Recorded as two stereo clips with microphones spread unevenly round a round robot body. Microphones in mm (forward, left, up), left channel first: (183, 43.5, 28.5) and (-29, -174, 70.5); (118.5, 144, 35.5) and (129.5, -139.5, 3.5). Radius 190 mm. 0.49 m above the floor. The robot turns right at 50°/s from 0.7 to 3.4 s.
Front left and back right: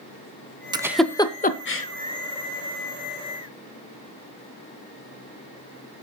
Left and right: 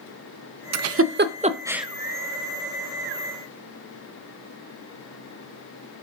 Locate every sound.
0.7 s a giggle: 55° right, 0.7 m; by 1.9 s straight ahead, 0.7 m